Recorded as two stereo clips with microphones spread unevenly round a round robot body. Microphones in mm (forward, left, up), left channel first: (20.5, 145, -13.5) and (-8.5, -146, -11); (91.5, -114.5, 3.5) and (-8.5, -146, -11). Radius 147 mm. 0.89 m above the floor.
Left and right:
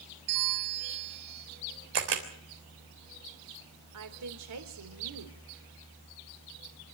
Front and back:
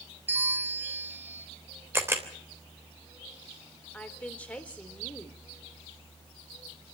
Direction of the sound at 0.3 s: 95° right.